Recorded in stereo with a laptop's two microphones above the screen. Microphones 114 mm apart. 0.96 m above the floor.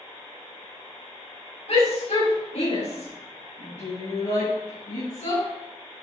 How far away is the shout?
About 4 m.